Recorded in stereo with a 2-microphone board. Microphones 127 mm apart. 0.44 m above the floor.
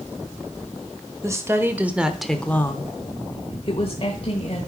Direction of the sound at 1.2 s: 25° right (ahead or behind).